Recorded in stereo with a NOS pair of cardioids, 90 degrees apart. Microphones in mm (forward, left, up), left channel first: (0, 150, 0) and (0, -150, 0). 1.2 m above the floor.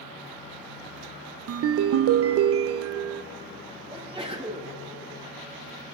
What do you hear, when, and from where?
1.5 s a ringtone: 50° right, 0.5 m
3.9 s a sneeze: 20° right, 7 m